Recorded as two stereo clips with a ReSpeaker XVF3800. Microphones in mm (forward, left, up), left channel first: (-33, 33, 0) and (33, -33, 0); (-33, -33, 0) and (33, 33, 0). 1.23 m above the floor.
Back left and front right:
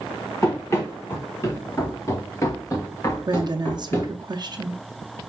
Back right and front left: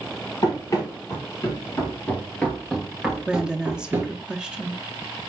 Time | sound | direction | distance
0.4 | running footsteps | 175° right | 2 m
3.3 | a woman speaking | 35° right | 0.6 m